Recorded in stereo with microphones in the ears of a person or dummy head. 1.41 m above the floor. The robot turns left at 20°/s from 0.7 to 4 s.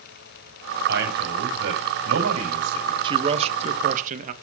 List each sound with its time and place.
0.9 s a man speaking: 70° right, 7.5 m; by 2.9 s 110° right, 7.5 m
3.0 s a man speaking: 35° right (ahead or behind), 1.4 m; by 4.3 s 50° right (ahead or behind), 1.4 m